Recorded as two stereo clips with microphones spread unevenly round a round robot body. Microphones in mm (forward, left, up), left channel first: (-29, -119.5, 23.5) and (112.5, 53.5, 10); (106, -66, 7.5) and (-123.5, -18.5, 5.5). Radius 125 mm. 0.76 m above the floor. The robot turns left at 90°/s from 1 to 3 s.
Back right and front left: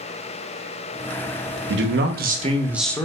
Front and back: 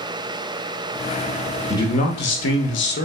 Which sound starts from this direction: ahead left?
A man speaking, at 1.7 s.